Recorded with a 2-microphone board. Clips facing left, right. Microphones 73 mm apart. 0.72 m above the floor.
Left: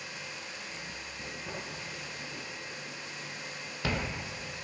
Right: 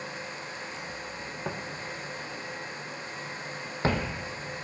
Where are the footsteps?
70° right (ahead or behind), 2.5 m; by 4.2 s 25° right (ahead or behind), 1.1 m.